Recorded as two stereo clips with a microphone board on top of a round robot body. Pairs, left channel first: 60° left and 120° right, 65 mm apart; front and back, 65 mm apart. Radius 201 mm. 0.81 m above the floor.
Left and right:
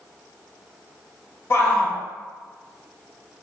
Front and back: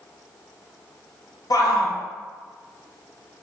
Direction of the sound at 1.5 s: 10° left.